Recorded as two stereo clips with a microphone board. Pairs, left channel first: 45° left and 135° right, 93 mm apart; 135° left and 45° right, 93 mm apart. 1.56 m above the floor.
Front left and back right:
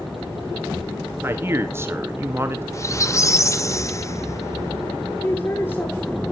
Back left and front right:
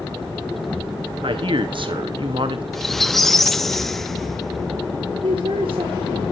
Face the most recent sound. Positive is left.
turn(degrees=-15)